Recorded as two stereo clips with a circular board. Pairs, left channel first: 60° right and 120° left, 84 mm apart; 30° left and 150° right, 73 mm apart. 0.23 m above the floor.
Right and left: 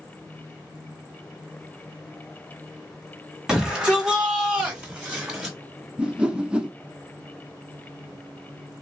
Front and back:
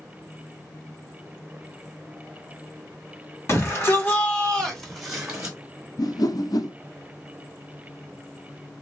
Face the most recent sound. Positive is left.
turn(degrees=45)